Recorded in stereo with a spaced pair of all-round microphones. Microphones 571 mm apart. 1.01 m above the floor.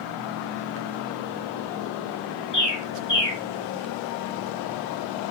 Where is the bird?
45° left (ahead or behind), 2.5 m.